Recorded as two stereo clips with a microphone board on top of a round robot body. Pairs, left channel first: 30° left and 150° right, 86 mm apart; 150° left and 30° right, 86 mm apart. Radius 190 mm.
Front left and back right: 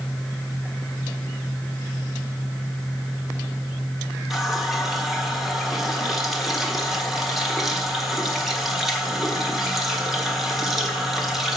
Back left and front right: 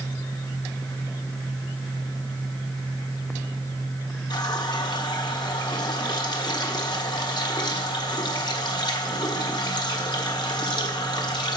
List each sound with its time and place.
4.3 s a running tap: 125° left, 1.5 m